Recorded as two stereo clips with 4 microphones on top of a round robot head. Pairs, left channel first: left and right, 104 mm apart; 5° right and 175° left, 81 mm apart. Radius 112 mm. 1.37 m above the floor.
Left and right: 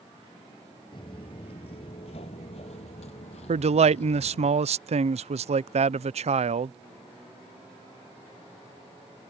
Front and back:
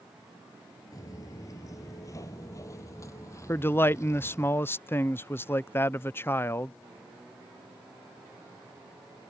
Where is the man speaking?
70° right.